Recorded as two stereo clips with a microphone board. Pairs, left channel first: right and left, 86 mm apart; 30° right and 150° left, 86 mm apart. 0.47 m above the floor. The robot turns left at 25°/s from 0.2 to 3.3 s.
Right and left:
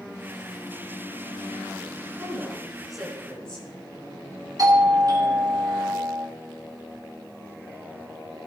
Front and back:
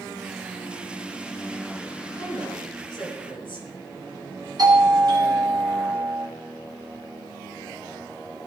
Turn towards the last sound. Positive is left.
turn(degrees=125)